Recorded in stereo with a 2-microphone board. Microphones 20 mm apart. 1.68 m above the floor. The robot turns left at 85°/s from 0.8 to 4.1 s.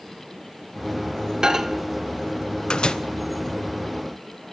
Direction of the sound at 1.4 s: 35° right (ahead or behind).